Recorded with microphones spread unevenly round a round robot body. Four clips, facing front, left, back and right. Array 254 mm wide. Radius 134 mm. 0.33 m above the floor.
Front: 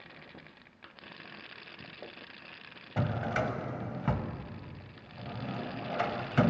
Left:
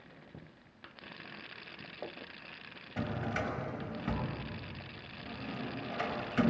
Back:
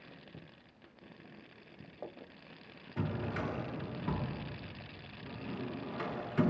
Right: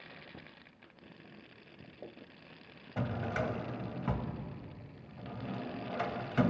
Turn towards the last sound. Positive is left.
turn(degrees=-5)